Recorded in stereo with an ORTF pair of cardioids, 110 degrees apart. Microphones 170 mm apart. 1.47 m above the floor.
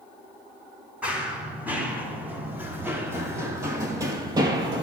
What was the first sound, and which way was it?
Running footsteps, 10° right.